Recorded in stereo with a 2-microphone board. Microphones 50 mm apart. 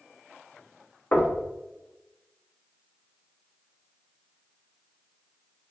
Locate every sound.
1.1 s knocking: 45° left (ahead or behind), 1.0 m